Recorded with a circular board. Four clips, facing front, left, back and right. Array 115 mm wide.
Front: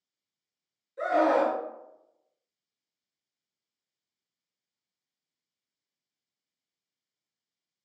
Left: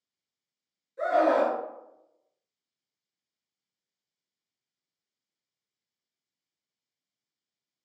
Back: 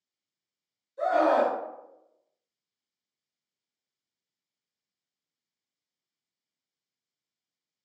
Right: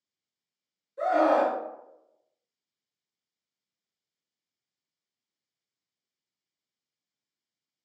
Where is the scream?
15° left, 1.4 m.